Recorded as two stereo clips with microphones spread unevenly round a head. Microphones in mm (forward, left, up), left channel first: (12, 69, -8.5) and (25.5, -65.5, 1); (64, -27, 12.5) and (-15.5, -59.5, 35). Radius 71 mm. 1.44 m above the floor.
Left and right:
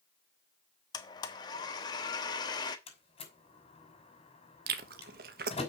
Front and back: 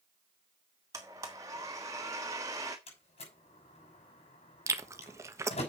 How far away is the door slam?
About 5.5 m.